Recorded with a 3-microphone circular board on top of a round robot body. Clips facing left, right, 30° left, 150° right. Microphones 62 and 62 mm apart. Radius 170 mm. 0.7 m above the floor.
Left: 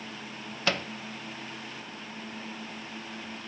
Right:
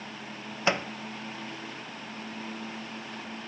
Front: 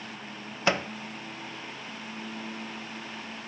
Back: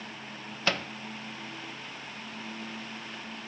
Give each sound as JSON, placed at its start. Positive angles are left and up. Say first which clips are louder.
{"t": 0.7, "sound": "a microwave", "louder": "right 2 dB, front 4 dB", "azimuth_deg": -30, "distance_m": 0.7}